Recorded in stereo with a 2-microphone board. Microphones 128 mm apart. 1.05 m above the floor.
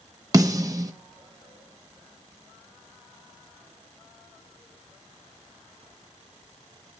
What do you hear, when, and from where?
0.3 s a snare drum: 30° right (ahead or behind), 1.1 m